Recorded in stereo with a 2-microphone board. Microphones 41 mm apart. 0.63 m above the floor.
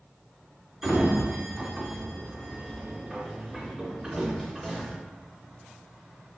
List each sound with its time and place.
0.8 s a sliding door: 10° right (ahead or behind), 0.6 m